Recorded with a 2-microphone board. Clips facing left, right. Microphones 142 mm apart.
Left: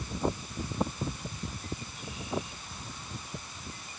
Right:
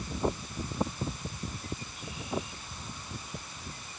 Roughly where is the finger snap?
I don't hear a finger snap.